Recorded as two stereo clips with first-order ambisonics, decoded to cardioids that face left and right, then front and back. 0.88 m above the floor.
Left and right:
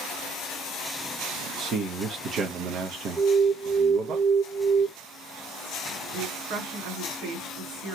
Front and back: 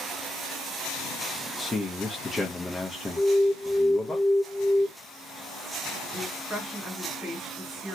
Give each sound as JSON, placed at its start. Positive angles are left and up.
{"t": 1.6, "sound": "a man speaking", "azimuth_deg": -70, "distance_m": 0.6}
{"t": 3.2, "sound": "an alarm", "azimuth_deg": -150, "distance_m": 2.0}
{"t": 6.1, "sound": "a woman speaking", "azimuth_deg": -85, "distance_m": 2.0}